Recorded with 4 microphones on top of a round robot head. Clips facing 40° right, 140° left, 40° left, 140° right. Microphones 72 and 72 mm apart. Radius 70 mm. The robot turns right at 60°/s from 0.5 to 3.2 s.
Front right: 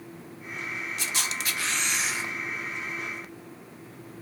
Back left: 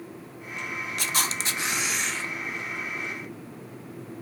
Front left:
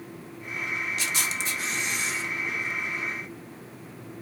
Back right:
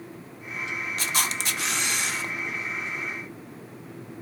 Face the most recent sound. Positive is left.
turn(degrees=-55)